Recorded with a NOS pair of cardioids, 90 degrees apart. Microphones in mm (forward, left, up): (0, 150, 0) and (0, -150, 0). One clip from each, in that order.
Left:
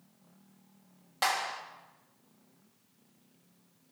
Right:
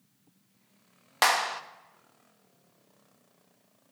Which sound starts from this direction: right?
A clap, at 1.2 s.